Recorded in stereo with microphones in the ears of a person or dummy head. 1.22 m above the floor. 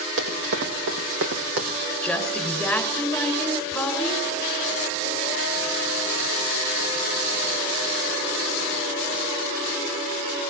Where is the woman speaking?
5° left (ahead or behind), 6.5 m.